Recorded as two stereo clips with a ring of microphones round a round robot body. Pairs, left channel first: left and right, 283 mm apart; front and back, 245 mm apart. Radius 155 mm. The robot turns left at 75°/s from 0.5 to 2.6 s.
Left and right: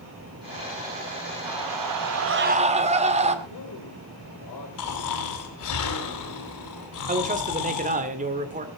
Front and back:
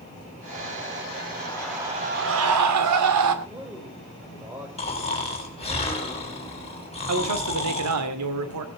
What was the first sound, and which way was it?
A scream, 70° right.